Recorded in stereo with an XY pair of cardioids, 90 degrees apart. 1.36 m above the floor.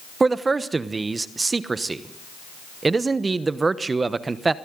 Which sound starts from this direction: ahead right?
A man speaking, at 0.2 s.